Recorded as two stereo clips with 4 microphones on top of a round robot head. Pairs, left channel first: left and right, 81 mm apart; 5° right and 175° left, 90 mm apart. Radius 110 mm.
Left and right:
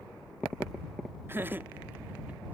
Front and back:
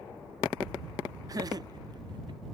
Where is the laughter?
145° right; by 2.4 s 160° right.